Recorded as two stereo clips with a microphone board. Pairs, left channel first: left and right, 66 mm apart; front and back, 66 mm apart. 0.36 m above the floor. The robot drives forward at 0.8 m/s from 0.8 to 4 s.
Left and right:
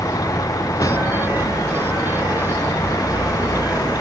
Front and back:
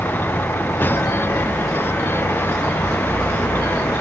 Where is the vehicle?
60° left.